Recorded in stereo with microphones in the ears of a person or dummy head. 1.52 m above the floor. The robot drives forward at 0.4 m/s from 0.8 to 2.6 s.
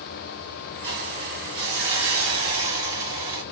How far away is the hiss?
About 1.7 m.